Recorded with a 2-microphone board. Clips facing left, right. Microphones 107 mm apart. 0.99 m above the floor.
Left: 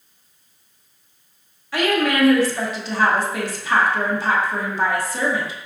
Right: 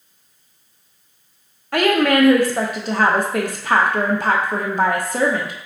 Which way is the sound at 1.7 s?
55° right (ahead or behind).